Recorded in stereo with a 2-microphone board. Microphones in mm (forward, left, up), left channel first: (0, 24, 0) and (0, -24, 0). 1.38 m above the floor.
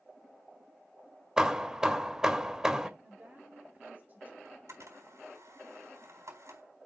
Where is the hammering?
15° right (ahead or behind), 1.5 m.